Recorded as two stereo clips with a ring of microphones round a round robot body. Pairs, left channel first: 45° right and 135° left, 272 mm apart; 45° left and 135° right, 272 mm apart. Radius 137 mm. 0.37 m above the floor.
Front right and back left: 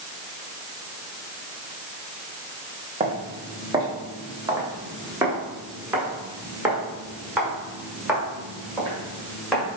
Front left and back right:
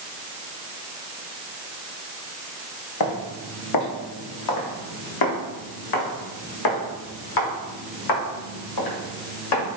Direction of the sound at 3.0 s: 60° left.